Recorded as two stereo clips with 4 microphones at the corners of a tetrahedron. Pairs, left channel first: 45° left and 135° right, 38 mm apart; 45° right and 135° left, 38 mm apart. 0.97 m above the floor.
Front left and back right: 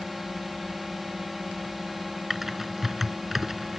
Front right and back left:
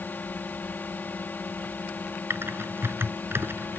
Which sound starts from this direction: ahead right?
A drone, at 0.0 s.